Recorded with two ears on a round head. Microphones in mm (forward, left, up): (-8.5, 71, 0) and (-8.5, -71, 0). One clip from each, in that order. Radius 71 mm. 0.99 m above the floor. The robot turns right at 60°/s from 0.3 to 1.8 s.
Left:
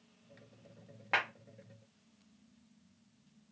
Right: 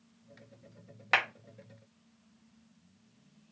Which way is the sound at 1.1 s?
80° right.